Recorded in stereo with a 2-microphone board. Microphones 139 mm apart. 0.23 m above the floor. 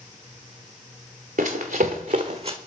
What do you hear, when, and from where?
1.4 s running footsteps: 85° right, 1.8 m; by 2.6 s 40° right (ahead or behind), 0.9 m